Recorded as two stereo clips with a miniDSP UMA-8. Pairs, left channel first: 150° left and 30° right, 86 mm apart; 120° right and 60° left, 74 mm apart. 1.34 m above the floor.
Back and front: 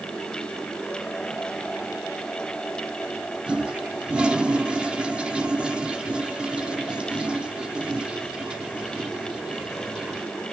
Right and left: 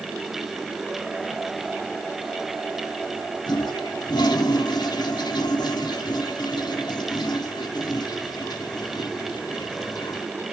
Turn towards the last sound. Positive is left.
turn(degrees=-110)